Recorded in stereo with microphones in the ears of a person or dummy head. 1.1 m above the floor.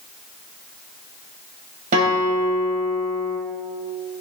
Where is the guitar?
50° right (ahead or behind), 2.5 m.